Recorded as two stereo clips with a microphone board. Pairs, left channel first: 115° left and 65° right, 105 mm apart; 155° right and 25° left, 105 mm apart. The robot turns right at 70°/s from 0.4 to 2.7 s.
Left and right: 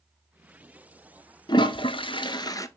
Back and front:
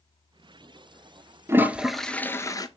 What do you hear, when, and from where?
1.5 s a toilet flushing: 80° left, 0.5 m; by 2.7 s 165° left, 0.5 m